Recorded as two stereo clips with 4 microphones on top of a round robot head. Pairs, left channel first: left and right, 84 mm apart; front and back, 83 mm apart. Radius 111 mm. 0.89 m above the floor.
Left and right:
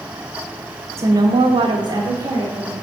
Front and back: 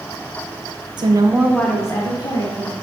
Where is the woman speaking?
150° right, 0.9 m; by 2.7 s 30° right, 2.0 m.